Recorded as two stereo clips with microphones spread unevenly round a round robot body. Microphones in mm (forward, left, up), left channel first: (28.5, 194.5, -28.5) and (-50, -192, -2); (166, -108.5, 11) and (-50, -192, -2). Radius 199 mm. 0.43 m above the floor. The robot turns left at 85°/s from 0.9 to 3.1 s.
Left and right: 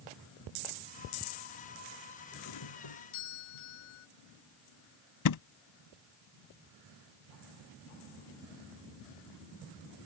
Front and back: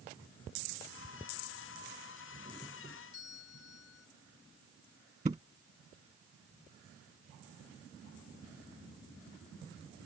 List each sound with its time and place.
2.3 s a doorbell: 140° left; by 4.1 s 75° left
5.2 s a thud: 125° left